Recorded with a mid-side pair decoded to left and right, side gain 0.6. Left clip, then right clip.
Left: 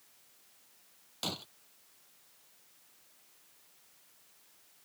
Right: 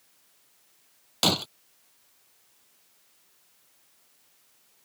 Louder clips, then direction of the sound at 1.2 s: Right 14 dB; 60° right.